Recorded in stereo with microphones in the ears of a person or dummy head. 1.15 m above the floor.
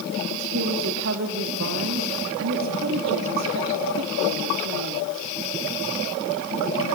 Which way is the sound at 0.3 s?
70° right (ahead or behind).